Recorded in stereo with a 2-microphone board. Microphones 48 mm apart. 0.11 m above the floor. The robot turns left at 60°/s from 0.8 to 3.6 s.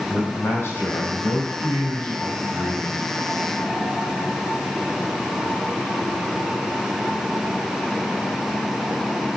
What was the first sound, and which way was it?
A man speaking, 120° left.